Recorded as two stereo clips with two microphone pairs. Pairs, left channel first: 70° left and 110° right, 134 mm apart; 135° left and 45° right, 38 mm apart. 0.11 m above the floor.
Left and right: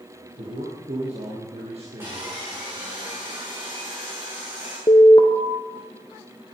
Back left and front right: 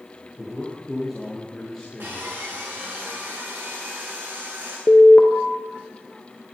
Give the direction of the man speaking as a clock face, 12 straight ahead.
4 o'clock.